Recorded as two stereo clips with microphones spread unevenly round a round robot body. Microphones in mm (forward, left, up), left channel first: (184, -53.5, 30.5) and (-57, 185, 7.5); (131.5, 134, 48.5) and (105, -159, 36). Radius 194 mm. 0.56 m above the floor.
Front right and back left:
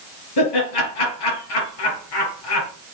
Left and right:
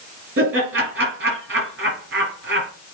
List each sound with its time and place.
0.4 s laughter: 45° right, 5.5 m